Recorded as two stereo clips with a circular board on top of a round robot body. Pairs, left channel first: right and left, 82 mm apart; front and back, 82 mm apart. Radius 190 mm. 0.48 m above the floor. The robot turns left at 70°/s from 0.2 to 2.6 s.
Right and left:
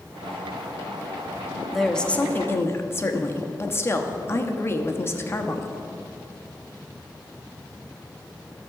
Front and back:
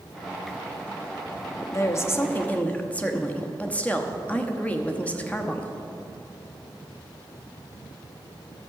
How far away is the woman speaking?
About 1.1 m.